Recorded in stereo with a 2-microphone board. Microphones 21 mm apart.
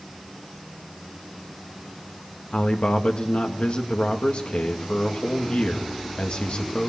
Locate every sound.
2.5 s a man speaking: 80° left, 2.5 m